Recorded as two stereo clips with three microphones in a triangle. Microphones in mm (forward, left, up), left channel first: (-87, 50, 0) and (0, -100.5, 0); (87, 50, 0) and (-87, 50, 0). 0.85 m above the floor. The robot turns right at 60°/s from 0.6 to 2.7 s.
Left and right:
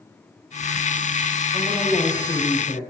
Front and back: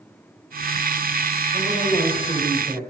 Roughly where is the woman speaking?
Ahead left.